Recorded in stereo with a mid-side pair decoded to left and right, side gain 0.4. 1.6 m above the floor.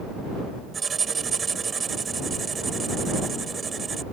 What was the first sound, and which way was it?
Writing, 40° right.